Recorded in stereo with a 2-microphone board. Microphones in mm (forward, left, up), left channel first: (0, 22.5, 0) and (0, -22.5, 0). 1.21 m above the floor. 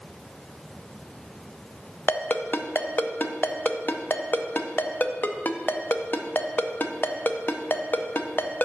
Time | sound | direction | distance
2.1 | a ringtone | 45° left (ahead or behind) | 0.7 m